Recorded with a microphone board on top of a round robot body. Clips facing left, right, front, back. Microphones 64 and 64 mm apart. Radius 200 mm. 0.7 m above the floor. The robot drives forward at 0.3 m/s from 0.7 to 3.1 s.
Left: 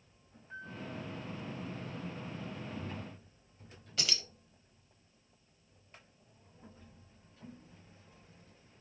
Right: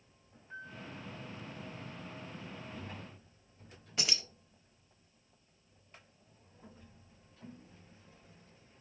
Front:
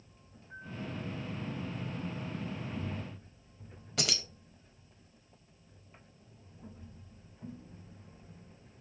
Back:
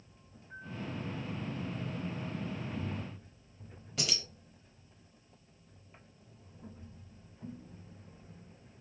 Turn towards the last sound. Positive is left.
turn(degrees=-20)